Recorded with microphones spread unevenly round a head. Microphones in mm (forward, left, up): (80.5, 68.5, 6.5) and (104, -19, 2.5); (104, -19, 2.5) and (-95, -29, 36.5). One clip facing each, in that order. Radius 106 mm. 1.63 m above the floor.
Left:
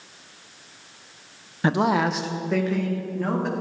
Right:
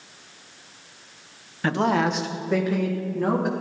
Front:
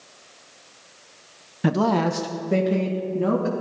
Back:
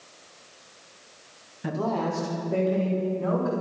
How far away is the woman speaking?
About 0.8 m.